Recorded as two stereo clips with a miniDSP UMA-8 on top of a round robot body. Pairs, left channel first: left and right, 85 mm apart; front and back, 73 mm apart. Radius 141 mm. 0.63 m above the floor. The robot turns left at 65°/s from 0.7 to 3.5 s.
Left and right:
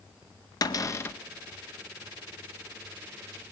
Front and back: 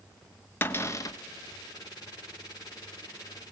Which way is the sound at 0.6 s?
55° left.